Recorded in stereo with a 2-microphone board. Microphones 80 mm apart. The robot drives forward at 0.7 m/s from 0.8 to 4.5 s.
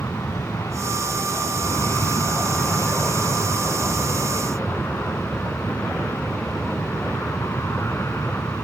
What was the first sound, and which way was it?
An aircraft, 40° left (ahead or behind).